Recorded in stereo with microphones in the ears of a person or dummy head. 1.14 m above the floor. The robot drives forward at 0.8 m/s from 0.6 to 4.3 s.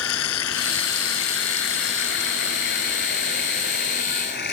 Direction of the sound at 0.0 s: 75° left (ahead or behind).